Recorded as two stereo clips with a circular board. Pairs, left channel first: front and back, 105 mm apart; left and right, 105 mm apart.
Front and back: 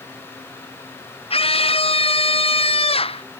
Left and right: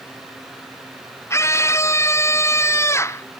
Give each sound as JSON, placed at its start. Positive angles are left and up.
{"t": 1.3, "sound": "a scream", "azimuth_deg": 25}